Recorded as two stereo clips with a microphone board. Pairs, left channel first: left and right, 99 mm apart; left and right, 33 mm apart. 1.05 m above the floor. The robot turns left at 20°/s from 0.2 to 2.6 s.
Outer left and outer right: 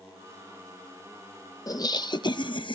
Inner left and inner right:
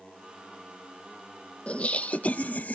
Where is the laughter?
35° left (ahead or behind), 1.0 m; by 2.8 s 55° left (ahead or behind), 1.0 m.